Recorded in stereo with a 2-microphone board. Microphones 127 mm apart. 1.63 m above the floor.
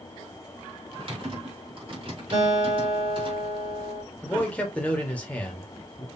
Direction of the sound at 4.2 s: 10° left (ahead or behind).